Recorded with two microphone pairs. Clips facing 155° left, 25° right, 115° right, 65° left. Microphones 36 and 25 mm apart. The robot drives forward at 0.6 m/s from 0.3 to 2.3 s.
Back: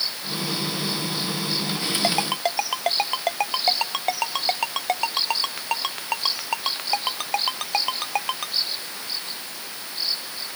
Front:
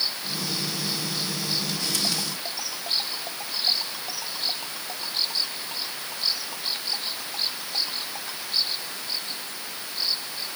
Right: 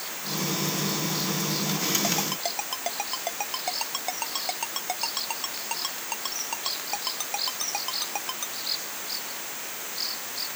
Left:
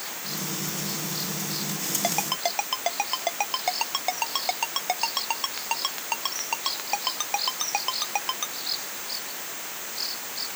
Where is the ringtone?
130° left.